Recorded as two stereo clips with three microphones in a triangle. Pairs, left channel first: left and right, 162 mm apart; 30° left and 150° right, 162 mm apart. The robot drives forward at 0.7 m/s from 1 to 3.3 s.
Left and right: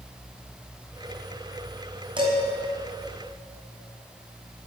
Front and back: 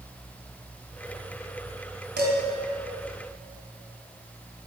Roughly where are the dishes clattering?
Behind right.